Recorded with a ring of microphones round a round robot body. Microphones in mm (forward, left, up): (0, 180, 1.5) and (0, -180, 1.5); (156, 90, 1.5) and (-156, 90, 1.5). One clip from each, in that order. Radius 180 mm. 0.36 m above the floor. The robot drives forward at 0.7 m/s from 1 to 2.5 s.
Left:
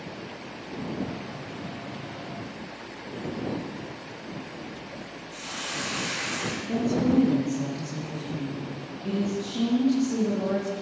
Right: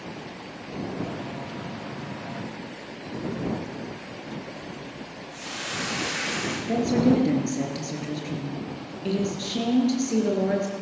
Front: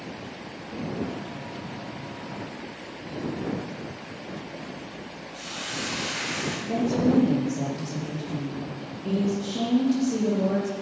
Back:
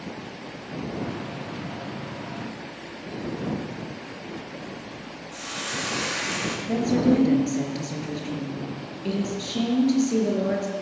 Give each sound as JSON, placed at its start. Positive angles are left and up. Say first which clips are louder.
{"t": 5.3, "sound": "a hiss", "louder": "right 1 dB, back 3 dB", "azimuth_deg": 165, "distance_m": 9.0}
{"t": 6.7, "sound": "a woman speaking", "louder": "right 4 dB, back 2 dB", "azimuth_deg": -140, "distance_m": 5.0}